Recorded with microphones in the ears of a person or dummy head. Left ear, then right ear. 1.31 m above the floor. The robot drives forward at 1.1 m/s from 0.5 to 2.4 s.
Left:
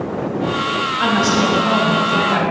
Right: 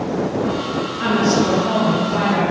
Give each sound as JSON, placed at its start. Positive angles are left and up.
{"t": 1.0, "sound": "a woman speaking", "side_deg": 45, "distance_m": 2.5}